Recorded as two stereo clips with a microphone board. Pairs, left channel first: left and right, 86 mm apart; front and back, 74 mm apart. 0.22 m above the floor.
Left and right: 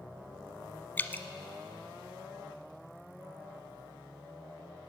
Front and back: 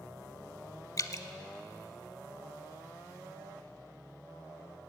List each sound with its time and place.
1.0 s dripping: 25° left, 0.6 m